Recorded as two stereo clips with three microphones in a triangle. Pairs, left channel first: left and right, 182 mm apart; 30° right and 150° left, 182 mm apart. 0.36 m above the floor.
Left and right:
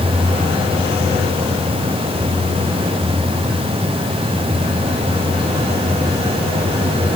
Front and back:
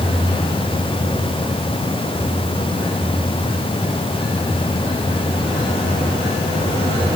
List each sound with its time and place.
Only background noise.